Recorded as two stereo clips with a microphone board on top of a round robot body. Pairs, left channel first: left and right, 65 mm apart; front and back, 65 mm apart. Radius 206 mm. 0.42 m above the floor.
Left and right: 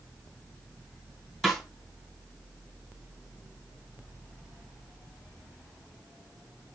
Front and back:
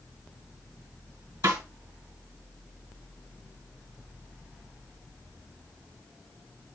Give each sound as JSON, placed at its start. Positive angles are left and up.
{"t": 1.4, "sound": "a snare drum", "azimuth_deg": -175, "distance_m": 3.0}